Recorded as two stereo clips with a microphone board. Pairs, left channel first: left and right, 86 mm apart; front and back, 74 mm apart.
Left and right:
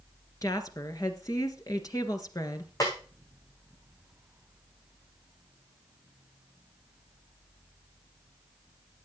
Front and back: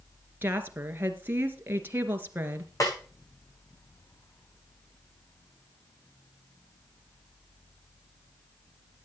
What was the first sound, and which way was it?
A woman speaking, 125° left.